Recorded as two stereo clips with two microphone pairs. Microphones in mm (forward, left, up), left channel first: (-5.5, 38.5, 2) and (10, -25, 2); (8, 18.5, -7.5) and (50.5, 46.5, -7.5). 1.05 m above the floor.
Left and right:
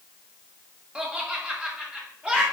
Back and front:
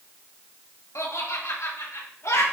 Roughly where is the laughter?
Behind right.